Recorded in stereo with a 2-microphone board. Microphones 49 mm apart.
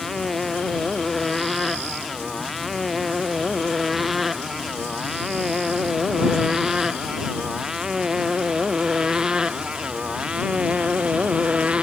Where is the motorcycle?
Centre (ahead or behind); by 11.8 s 25° right (ahead or behind).